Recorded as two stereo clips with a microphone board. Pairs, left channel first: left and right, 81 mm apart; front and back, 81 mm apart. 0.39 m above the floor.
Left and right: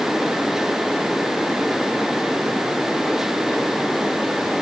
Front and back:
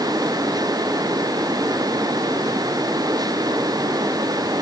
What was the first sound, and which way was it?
Only background noise.